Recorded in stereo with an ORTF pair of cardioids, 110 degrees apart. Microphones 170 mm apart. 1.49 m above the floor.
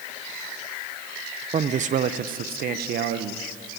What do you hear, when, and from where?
1.5 s a man speaking: 40° right, 0.7 m; by 3.5 s 70° right, 1.5 m